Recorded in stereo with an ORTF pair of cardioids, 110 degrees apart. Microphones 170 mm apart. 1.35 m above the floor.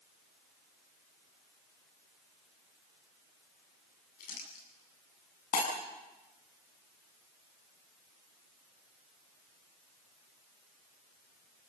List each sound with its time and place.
4.2 s crumpling: 60° left, 9 m
5.5 s breaking glass: 60° left, 7.5 m